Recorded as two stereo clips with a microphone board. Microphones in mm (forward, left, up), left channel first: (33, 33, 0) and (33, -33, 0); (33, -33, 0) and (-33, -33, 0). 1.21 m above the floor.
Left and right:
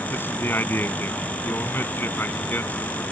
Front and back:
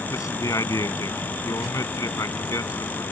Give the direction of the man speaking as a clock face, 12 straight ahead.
11 o'clock.